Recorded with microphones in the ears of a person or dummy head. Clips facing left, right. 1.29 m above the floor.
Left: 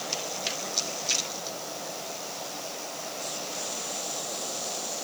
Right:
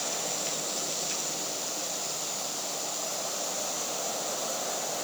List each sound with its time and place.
Only background noise.